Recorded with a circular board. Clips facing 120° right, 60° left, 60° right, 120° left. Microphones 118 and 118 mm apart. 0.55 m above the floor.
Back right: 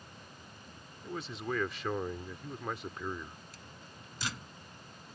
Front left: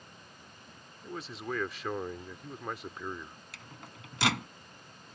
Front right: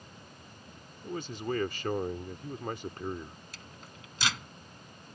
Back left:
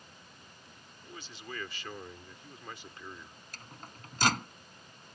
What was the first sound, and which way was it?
A man speaking, 30° right.